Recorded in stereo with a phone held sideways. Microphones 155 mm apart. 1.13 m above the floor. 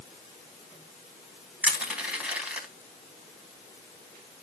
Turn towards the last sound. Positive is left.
turn(degrees=-10)  # may be behind; listen again after turning